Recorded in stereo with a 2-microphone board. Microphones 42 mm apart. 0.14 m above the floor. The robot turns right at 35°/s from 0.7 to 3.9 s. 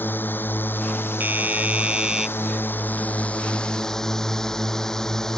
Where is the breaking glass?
No breaking glass in this recording.